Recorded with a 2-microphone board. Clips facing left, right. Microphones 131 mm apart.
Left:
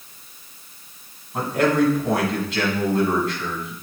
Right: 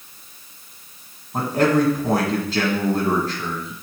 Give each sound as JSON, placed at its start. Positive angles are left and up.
{"t": 1.3, "sound": "a man speaking", "side_deg": -35, "distance_m": 2.0}